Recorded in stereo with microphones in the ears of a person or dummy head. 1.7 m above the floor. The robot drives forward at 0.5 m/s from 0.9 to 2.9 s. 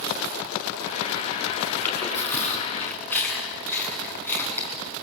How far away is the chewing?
About 5 m.